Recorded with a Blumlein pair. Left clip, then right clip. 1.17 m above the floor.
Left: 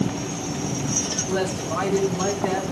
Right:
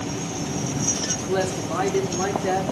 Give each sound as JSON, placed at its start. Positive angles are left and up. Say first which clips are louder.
{"t": 1.3, "sound": "a woman speaking", "louder": "right 1 dB", "azimuth_deg": -10, "distance_m": 3.0}